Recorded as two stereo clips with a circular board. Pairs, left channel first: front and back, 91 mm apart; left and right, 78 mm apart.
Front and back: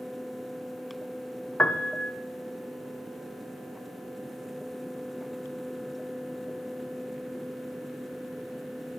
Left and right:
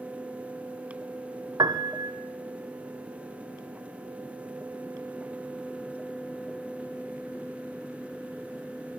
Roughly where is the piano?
Right.